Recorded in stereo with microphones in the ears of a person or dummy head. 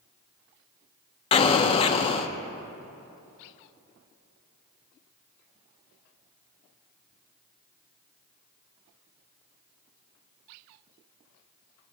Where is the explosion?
30° left (ahead or behind), 0.6 m.